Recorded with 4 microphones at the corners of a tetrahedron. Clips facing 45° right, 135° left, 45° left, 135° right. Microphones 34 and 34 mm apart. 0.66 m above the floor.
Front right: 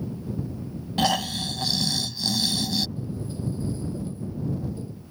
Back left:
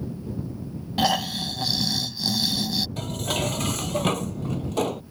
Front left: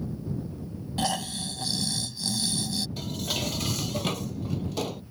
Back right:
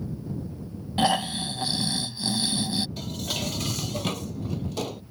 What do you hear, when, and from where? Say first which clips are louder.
1.0 s snoring: back left 1 dB, back right 6 dB; 145° right
3.0 s dishes clattering: back left 6 dB, even; 130° left